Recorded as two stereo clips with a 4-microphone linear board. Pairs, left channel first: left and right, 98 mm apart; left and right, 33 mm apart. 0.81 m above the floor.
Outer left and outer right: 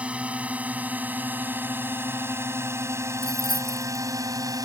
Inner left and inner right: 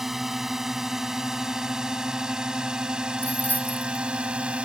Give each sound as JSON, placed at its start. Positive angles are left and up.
{"t": 0.0, "sound": "a drone", "side_deg": -10}
{"t": 3.2, "sound": "keys jangling", "side_deg": 55}